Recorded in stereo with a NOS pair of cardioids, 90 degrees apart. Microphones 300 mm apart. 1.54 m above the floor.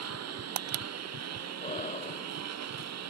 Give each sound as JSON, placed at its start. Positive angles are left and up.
{"t": 0.0, "sound": "a lawn mower", "azimuth_deg": -55}
{"t": 1.6, "sound": "breathing", "azimuth_deg": 25}